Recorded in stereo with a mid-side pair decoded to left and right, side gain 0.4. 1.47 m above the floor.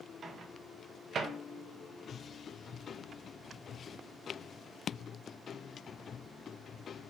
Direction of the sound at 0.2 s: 60° right.